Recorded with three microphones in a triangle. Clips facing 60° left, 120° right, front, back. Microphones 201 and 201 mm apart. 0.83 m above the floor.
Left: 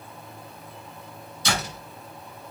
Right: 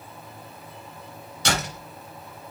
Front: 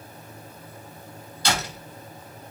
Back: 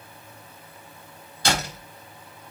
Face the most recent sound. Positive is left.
turn(degrees=-140)